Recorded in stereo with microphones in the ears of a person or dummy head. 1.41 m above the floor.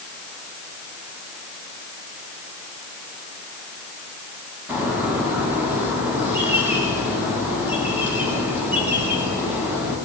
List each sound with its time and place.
4.7 s a bird: 10° right (ahead or behind), 9 m